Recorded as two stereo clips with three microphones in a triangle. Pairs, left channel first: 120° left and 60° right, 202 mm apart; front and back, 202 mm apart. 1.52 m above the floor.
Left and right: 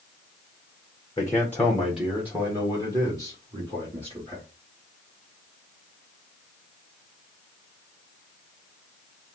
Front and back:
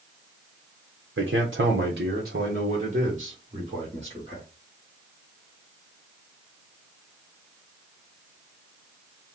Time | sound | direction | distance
1.2 | a man speaking | 170° right | 0.8 m